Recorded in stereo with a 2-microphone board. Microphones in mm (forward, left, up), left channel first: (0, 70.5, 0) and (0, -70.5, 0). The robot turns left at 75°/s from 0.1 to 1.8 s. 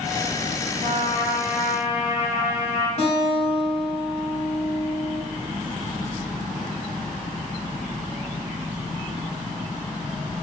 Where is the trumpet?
130° right, 3.5 m; by 2.9 s 155° left, 3.5 m.